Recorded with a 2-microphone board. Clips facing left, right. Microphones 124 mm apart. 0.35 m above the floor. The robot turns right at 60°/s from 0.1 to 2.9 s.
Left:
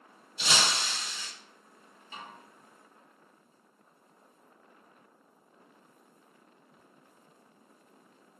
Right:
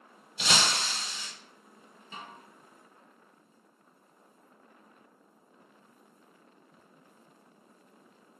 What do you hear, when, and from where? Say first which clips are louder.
0.4 s breaking glass: right 1 dB; 75° right, 0.6 m; by 1.3 s 20° right, 0.6 m
2.1 s a snare drum: even; 40° right (ahead or behind), 1.3 m; by 2.4 s 55° right (ahead or behind), 1.3 m